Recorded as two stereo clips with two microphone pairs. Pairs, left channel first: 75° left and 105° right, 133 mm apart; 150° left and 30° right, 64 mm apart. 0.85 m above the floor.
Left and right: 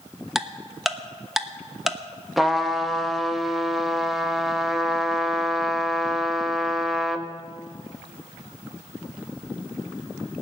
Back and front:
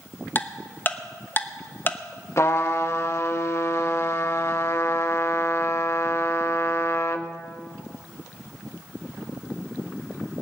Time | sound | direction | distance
0.3 | ticking | 175° left | 1.0 m
2.4 | a trumpet | 170° left | 1.1 m